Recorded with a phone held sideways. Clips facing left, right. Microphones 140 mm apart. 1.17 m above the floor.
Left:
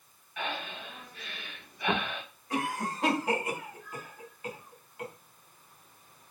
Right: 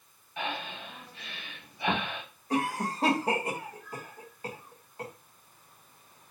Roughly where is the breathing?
Right.